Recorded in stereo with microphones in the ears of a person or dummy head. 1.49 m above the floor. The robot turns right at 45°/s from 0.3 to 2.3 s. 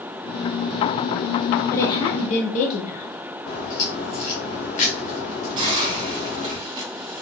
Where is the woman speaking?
15° left (ahead or behind), 0.7 m; by 3.1 s 40° left (ahead or behind), 0.7 m.